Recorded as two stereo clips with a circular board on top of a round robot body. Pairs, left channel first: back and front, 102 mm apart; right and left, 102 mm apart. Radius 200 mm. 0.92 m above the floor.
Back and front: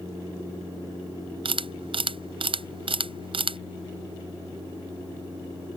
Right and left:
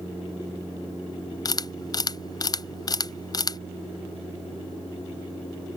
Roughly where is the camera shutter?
Ahead right.